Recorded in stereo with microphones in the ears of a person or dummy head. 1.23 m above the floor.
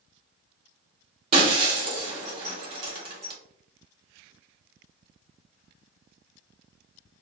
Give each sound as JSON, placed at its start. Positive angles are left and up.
{"t": 1.3, "sound": "breaking glass", "side_deg": -30, "distance_m": 1.6}